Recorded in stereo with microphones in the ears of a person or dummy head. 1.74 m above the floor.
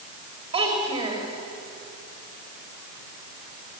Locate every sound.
0.5 s a child speaking: 30° right (ahead or behind), 5.5 m